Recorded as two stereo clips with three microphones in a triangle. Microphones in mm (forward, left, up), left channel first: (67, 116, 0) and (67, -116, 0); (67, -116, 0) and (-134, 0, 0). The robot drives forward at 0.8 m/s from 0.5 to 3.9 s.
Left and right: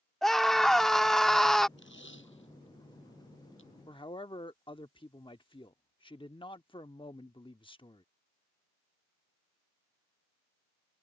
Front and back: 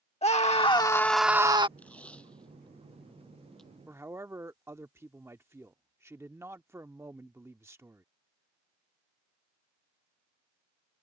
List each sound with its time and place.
0.2 s a scream: 5° left; by 1.7 s 175° left
1.8 s tape being pulled: 55° left; by 3.7 s 60° left
3.9 s a man speaking: 85° left; by 8.0 s 90° left